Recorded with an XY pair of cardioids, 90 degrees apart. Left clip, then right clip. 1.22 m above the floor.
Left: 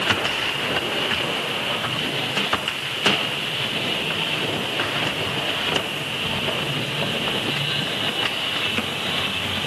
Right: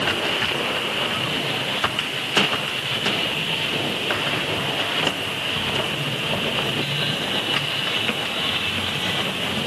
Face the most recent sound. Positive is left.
No sound to turn to.